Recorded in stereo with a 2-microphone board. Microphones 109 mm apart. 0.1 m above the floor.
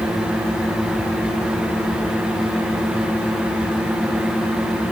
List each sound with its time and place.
Only background noise.